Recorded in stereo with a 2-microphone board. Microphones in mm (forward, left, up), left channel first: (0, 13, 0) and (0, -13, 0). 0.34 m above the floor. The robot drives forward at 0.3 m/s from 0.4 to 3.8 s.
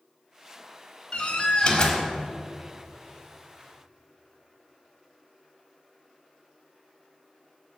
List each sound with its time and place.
1.1 s a door slam: 35° left (ahead or behind), 1.0 m; by 2.0 s 30° left (ahead or behind), 1.2 m